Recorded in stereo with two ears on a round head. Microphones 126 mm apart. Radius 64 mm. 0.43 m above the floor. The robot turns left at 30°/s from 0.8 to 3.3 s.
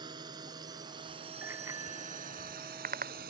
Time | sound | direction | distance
0.0 | a drone | 30° right (ahead or behind) | ?
1.4 | a bicycle bell | 15° right (ahead or behind) | ?